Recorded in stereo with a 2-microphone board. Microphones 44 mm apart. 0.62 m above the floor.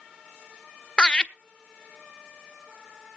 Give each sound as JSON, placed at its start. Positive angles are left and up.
{"t": 1.0, "sound": "laughter", "side_deg": 20, "distance_m": 0.5}